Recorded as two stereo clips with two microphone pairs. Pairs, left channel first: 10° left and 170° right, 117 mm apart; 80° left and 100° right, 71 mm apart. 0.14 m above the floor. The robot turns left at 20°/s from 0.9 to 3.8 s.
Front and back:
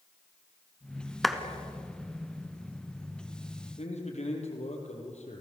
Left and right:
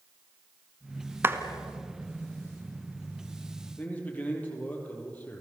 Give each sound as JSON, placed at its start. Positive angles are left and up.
{"t": 1.2, "sound": "a clap", "azimuth_deg": -75, "distance_m": 1.6}
{"t": 3.8, "sound": "a man speaking", "azimuth_deg": 15, "distance_m": 5.0}